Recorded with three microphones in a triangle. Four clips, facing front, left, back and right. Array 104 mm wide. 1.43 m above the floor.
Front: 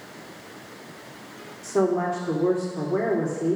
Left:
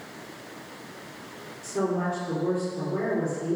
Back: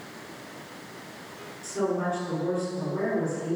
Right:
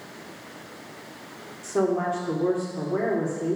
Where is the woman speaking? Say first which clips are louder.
Right 3 dB, front 5 dB; 30° right, 4 m.